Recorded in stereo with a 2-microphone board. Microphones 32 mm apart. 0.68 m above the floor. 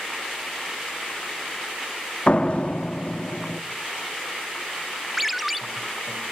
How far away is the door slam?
About 1.0 m.